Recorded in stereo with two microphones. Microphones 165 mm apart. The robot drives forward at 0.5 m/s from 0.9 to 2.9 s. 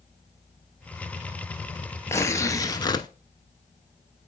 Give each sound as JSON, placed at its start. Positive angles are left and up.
{"t": 2.1, "sound": "tearing paper", "side_deg": 15, "distance_m": 0.9}